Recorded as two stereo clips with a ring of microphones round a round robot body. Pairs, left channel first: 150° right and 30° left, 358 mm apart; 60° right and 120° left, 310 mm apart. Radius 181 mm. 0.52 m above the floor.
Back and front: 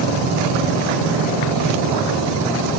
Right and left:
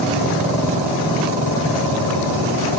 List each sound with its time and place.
Only background noise.